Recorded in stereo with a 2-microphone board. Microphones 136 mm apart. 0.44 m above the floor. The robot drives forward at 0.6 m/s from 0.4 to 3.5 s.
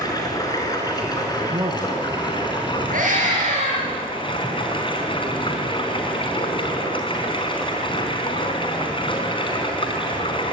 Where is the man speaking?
30° right (ahead or behind), 3 m; by 2.8 s 35° right (ahead or behind), 2.5 m.